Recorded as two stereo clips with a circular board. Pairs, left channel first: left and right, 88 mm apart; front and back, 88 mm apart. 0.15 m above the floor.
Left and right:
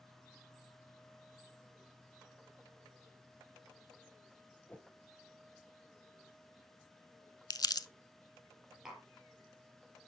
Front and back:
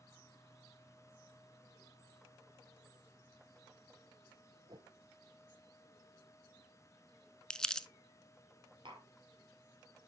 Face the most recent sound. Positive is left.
turn(degrees=-175)